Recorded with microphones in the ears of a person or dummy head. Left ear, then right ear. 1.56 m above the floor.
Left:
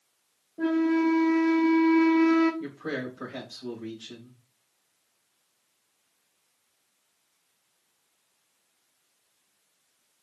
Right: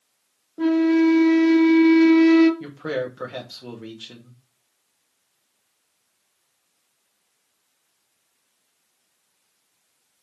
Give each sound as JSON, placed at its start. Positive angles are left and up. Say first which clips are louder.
{"t": 0.6, "sound": "a flute", "louder": "right 6 dB", "side_deg": -45, "distance_m": 1.0}
{"t": 2.6, "sound": "a man speaking", "louder": "right 6 dB", "side_deg": -45, "distance_m": 1.4}